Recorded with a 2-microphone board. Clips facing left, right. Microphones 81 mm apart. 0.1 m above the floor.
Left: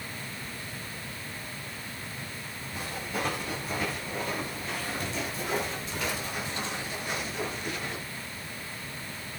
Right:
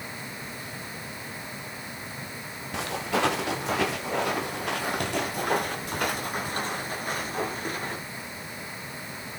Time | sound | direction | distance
2.7 | footsteps | 85° right | 2.5 m